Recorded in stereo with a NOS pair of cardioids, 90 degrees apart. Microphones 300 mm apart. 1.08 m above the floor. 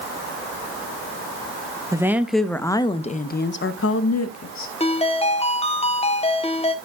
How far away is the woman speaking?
About 1.3 m.